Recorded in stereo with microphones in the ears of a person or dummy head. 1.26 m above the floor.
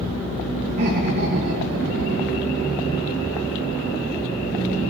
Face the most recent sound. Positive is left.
turn(degrees=-60)  # may be behind; listen again after turning